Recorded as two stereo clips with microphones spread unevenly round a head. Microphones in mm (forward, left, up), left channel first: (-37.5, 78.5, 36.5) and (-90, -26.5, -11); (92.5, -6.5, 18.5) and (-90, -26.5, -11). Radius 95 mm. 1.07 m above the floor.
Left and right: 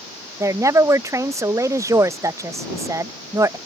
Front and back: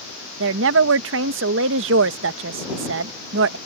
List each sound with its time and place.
0.4 s a woman speaking: 175° right